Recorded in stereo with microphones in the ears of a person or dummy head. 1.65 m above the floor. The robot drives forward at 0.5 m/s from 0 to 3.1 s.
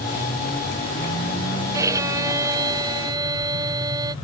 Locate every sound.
1.7 s a violin: 20° right (ahead or behind)